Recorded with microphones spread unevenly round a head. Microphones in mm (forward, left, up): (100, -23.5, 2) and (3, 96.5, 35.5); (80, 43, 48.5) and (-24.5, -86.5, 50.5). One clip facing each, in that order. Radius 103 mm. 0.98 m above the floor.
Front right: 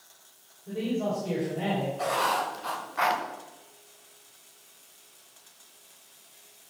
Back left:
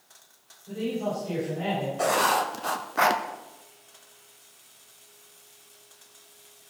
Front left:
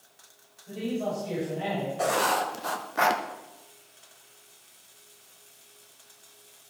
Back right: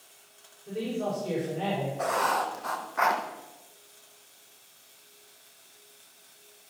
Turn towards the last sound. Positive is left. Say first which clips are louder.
# back left 4 dB, front left 4 dB
turn(degrees=100)